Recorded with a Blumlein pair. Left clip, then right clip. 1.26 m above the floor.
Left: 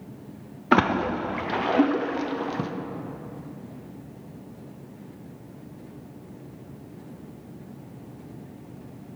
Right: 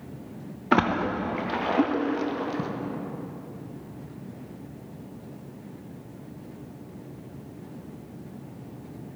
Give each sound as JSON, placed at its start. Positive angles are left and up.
{"t": 0.7, "sound": "a splash", "azimuth_deg": 10, "distance_m": 0.7}